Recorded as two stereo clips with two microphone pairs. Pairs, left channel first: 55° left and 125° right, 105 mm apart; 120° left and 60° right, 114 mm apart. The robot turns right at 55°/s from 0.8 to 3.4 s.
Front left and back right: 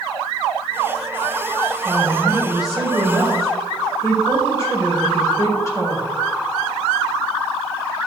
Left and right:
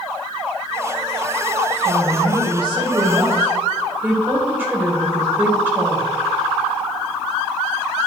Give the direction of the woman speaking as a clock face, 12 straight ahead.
3 o'clock.